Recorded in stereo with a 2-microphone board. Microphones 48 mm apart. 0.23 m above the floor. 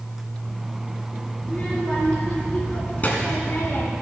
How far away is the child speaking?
About 3 m.